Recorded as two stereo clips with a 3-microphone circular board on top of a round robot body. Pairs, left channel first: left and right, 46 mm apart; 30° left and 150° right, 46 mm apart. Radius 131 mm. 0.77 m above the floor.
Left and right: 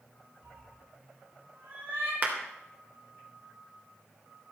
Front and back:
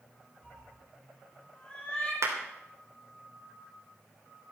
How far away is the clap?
About 3 m.